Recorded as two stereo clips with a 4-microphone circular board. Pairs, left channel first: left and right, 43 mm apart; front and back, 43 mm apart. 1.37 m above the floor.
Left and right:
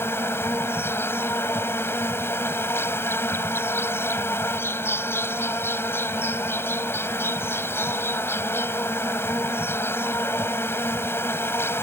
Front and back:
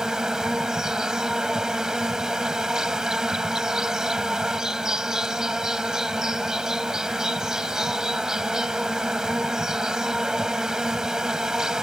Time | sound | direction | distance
0.0 | an insect | 105° left | ?